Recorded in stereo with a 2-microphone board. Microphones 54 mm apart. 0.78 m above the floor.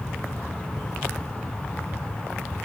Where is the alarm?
No alarm in this recording.